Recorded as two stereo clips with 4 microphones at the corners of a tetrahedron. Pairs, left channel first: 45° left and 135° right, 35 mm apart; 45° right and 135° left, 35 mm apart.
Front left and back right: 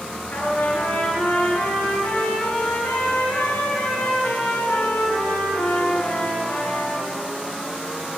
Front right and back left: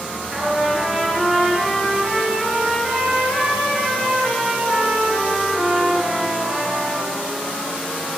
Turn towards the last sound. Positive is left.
turn(degrees=60)